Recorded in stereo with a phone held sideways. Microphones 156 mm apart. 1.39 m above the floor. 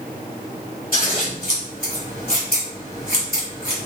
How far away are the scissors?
About 2.5 m.